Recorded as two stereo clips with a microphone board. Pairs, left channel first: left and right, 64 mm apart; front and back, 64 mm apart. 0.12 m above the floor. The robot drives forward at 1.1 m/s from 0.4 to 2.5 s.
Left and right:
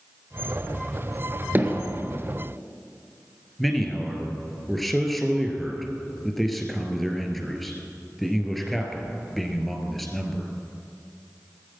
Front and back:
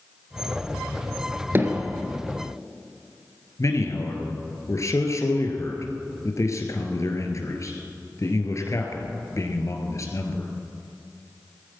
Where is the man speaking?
Straight ahead, 2.5 m.